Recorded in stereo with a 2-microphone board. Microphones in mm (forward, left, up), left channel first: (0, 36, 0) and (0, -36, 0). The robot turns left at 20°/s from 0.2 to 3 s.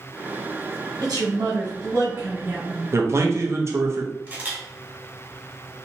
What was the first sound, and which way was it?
A woman speaking, 110° right.